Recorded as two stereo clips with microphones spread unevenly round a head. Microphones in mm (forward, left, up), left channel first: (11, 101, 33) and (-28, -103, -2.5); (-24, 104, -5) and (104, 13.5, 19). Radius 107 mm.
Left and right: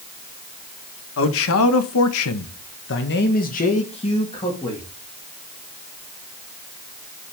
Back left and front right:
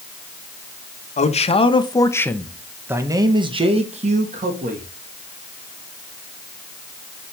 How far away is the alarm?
I don't hear an alarm.